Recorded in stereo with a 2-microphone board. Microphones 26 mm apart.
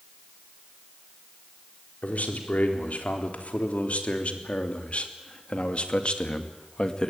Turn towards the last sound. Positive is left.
turn(degrees=35)  # may be behind; listen again after turning